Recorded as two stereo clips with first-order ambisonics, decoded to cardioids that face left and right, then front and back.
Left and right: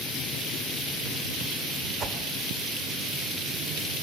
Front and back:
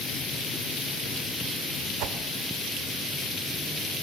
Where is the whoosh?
155° right, 1.5 m.